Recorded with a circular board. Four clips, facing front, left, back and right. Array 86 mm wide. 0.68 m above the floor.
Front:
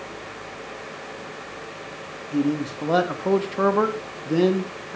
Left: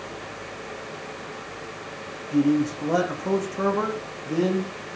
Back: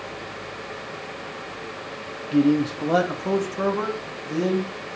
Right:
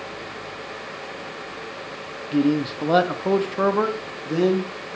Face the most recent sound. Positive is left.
turn(degrees=-10)